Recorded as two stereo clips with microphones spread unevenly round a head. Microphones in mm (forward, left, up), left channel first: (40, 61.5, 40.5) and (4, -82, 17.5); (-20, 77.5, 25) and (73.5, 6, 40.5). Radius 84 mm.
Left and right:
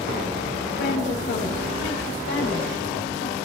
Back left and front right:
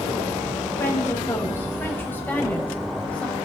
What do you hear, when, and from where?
0.8 s a woman speaking: 75° left, 6 m; by 3.4 s 65° left, 5 m